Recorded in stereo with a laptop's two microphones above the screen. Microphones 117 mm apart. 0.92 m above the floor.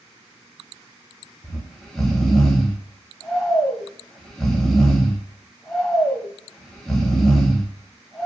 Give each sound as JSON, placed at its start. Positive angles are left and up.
{"t": 1.4, "sound": "snoring", "side_deg": 0, "distance_m": 0.9}